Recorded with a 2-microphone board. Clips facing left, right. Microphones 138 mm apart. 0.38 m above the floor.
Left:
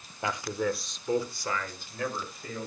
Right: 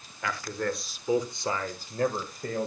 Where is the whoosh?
No whoosh in this recording.